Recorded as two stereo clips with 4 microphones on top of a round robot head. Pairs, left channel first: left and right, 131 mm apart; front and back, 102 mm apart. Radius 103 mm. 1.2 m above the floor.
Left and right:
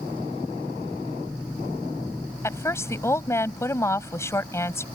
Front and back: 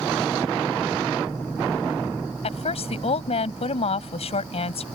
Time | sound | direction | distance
2.4 | a woman speaking | 20° left | ?